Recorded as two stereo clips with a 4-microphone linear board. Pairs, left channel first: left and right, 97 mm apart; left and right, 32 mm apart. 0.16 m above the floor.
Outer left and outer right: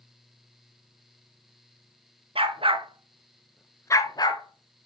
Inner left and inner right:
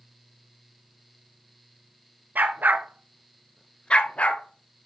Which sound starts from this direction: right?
A dog barking, at 2.4 s.